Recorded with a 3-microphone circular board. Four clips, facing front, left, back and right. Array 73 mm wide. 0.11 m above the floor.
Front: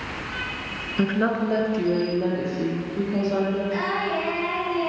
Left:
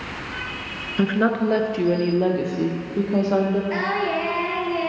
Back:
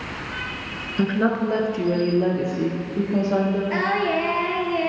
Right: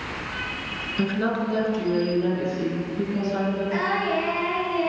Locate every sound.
1.0 s a woman speaking: 70° left, 1.1 m; by 3.6 s 100° left, 4 m
3.7 s singing: 155° left, 2.5 m